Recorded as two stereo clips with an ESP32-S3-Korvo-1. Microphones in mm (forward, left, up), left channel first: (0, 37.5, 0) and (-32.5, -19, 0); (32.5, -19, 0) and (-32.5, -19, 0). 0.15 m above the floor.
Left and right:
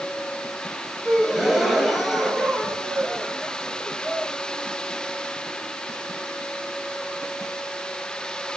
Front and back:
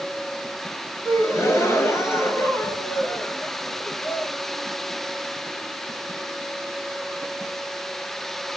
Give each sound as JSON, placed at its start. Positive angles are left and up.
{"t": 1.1, "sound": "a gasp", "azimuth_deg": -35, "distance_m": 1.3}